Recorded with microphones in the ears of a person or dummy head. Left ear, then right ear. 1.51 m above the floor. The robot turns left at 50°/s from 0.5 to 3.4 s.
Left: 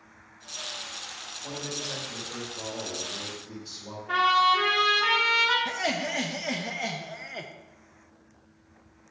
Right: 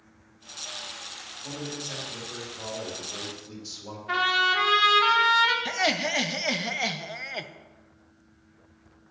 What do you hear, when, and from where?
1.4 s a man speaking: 25° left, 2.5 m; by 4.0 s 75° right, 2.5 m
4.1 s a trumpet: 60° right (ahead or behind), 1.6 m
5.7 s laughter: 25° right (ahead or behind), 0.5 m